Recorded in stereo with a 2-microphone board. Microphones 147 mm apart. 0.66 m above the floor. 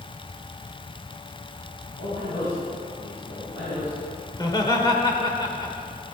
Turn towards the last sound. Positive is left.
turn(degrees=25)  # may be behind; listen again after turning